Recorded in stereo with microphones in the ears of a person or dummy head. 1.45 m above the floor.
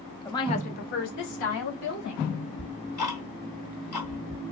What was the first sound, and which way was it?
A woman speaking, 10° left (ahead or behind).